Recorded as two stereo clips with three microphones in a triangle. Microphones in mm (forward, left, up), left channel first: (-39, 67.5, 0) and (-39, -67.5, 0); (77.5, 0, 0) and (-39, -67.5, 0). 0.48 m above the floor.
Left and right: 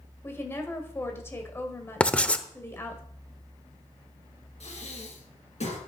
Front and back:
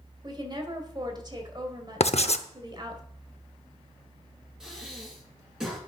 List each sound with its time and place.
0.2 s a woman speaking: 160° left, 1.9 m
2.0 s writing: 10° left, 0.7 m
4.6 s breathing: 125° left, 4 m